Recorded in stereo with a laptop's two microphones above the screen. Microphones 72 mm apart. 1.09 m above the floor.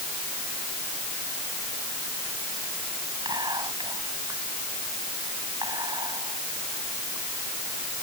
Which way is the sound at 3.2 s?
85° right.